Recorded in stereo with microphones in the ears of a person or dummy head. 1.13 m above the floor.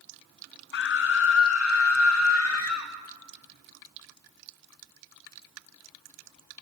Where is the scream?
60° left (ahead or behind), 0.8 m; by 2.9 s 85° left, 2 m.